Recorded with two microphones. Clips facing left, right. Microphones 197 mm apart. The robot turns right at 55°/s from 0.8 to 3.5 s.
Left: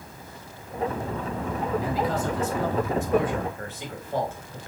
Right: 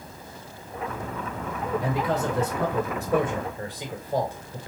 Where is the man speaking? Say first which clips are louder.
Even; 105° right, 3.5 m; by 4.7 s 15° right, 3.5 m.